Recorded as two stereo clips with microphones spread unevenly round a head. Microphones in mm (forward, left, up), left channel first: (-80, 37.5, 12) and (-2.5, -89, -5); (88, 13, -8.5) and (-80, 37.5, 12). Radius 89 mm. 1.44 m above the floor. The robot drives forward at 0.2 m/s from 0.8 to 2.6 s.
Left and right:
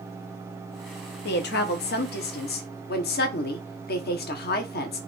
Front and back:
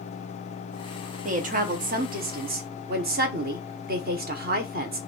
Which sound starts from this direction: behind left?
A woman speaking, at 1.2 s.